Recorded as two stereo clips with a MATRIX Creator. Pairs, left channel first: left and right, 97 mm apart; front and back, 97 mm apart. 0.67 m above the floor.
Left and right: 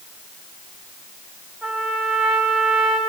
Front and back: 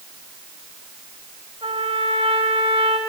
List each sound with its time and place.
1.6 s a trumpet: 175° left, 4.5 m